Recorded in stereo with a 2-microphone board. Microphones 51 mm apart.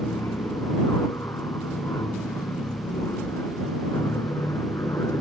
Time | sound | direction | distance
0.0 | an aircraft | 65° left (ahead or behind) | ?